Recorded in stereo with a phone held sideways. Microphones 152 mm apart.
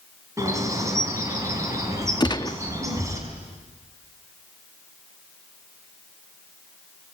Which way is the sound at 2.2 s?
30° left (ahead or behind).